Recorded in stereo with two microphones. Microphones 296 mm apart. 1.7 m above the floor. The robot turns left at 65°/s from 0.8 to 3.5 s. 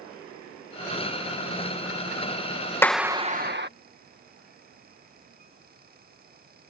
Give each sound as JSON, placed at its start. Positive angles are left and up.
{"t": 2.8, "sound": "a clap", "azimuth_deg": 10}